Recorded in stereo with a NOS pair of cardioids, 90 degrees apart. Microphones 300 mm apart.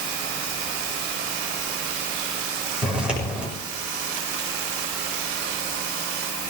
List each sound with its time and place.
2.8 s footsteps: 5° right, 6 m